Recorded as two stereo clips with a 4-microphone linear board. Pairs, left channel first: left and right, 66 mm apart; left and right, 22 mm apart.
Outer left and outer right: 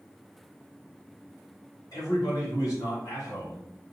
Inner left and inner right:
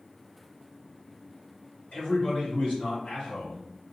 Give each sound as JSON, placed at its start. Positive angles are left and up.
{"t": 1.9, "sound": "a man speaking", "side_deg": 65, "distance_m": 1.6}